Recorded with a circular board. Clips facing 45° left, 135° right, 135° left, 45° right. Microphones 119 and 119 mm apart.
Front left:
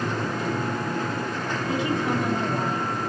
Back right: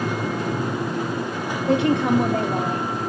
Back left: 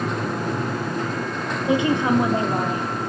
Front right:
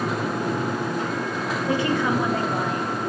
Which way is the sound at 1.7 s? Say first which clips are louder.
Back right 8 dB, back left 4 dB; 155° right.